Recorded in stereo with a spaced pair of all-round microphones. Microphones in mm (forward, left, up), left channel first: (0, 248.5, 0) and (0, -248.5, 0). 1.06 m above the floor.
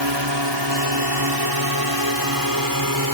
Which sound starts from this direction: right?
A drone, at 0.0 s.